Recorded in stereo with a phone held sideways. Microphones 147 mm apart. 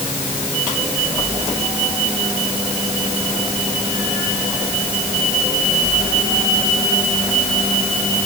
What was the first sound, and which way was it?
Only background noise.